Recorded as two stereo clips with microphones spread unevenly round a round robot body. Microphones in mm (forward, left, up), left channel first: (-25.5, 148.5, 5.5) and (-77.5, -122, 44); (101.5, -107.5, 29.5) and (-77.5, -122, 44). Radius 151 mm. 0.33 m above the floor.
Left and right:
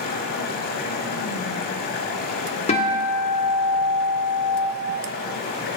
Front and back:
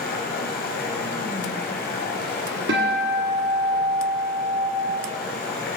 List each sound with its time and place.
0.0 s running water: 30° left, 1.2 m
2.7 s a guitar: 145° left, 1.7 m